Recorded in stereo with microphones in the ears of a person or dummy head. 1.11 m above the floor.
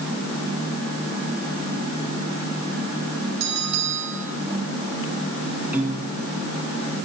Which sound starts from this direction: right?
A bell, at 3.4 s.